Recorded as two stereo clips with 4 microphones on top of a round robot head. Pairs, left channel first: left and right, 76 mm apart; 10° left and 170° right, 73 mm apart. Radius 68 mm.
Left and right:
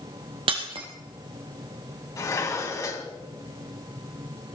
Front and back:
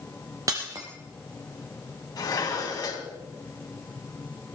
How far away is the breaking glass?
About 2.5 m.